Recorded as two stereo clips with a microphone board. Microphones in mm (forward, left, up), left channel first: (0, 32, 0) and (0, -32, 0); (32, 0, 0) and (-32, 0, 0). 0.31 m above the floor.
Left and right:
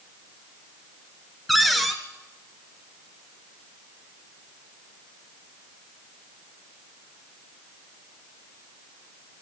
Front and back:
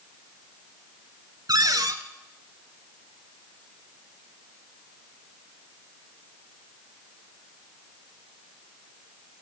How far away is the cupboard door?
About 1.5 m.